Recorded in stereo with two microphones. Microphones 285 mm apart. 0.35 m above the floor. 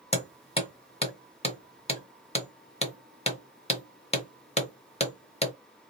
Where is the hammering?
20° left (ahead or behind), 1.1 m.